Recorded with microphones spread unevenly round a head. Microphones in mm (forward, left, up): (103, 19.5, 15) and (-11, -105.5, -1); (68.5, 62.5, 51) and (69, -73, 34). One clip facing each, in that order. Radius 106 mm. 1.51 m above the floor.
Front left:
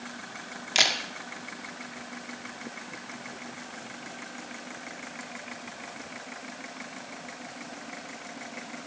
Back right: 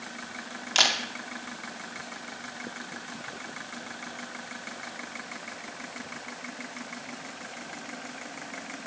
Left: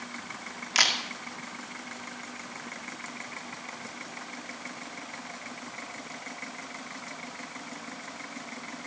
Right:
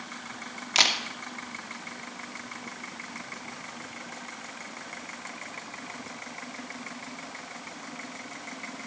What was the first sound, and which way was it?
A camera shutter, 25° right.